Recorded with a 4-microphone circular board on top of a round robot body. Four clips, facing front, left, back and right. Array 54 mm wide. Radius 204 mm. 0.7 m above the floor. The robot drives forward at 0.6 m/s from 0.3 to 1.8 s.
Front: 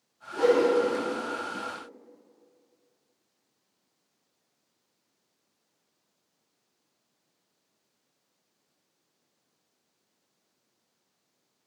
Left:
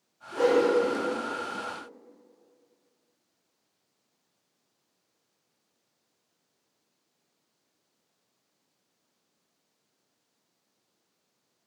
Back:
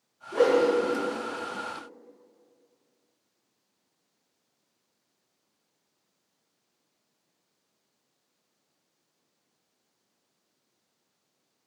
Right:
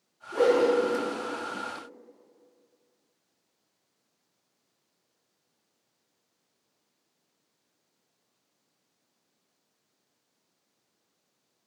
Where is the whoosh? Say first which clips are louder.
Even, even; 160° right, 3 m; by 1.0 s 165° right, 3.5 m.